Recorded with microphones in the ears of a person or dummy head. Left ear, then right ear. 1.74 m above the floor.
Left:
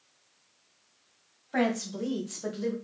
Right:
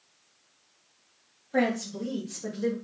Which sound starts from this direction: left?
A woman speaking, at 1.5 s.